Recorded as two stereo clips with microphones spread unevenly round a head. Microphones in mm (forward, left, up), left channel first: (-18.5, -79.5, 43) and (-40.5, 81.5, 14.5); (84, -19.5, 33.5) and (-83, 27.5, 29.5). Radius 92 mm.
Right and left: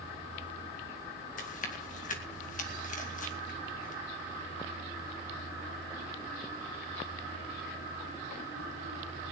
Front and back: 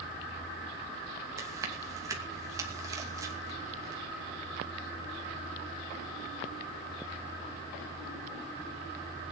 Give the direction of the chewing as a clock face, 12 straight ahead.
4 o'clock.